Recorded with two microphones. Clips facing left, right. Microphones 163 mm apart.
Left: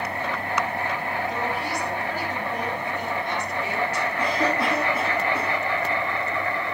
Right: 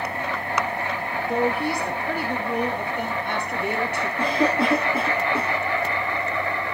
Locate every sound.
1.3 s a woman speaking: 55° right (ahead or behind), 3 m
4.2 s a cough: 30° right (ahead or behind), 5 m